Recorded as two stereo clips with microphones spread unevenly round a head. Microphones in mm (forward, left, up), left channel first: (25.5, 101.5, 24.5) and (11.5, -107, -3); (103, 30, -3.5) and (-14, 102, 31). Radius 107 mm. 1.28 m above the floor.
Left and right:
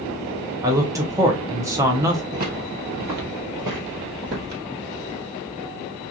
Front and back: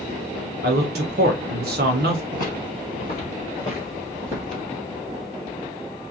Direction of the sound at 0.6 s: 170° right.